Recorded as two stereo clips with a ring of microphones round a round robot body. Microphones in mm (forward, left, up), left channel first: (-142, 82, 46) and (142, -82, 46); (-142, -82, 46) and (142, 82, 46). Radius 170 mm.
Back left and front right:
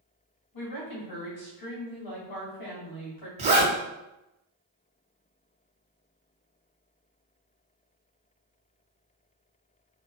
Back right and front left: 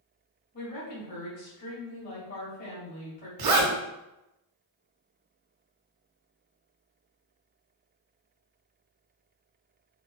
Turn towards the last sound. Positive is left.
turn(degrees=40)